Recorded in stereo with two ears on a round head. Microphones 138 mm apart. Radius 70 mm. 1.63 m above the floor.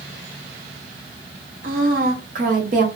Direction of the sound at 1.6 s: 55° right (ahead or behind).